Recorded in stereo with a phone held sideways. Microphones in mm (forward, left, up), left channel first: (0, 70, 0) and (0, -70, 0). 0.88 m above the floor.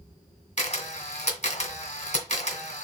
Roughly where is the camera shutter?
Left.